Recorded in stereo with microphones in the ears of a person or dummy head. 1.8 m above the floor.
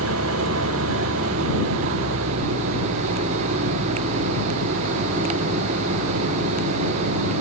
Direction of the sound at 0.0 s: 80° right.